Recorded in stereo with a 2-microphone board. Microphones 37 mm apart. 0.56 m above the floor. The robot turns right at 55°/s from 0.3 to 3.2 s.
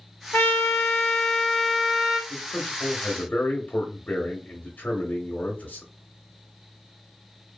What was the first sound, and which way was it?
A trumpet, 100° left.